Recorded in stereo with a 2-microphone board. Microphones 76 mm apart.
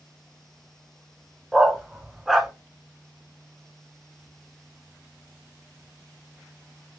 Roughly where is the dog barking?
Centre.